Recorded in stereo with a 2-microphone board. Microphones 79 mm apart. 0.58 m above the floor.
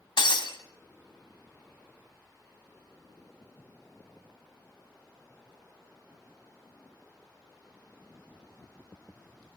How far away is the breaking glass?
About 2 m.